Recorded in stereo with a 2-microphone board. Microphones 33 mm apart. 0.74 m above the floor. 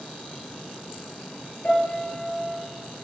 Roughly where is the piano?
Left.